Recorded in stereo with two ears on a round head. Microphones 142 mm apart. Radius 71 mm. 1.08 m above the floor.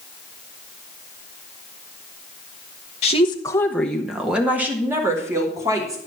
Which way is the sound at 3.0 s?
45° left (ahead or behind).